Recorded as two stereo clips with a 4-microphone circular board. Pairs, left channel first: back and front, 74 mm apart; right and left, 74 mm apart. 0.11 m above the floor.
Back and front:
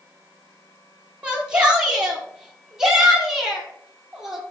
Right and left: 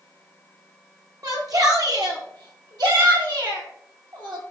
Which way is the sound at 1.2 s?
70° left.